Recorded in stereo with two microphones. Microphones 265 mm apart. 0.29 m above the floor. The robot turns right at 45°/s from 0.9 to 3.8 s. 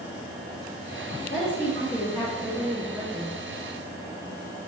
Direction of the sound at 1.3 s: 125° left.